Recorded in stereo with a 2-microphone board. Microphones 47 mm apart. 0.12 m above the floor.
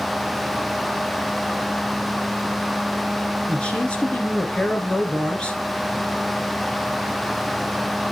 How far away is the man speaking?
About 2 m.